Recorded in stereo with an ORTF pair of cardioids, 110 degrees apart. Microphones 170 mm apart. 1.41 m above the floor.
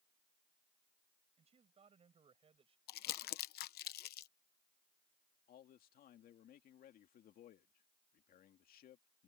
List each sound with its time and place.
1.4 s a man speaking: 40° right; by 2.8 s 35° right
2.9 s crumpling: 70° left
5.5 s a man speaking: 60° left